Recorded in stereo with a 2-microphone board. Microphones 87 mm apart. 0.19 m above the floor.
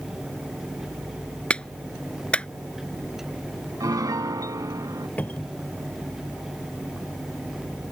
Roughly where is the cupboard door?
Centre.